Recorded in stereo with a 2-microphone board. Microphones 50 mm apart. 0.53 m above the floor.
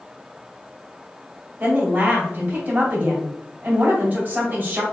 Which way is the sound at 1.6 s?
35° right (ahead or behind).